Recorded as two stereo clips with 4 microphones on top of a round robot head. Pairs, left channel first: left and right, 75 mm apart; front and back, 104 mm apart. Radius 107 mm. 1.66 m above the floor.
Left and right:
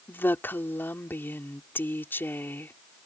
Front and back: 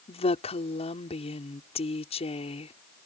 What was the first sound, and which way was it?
A woman speaking, 25° left.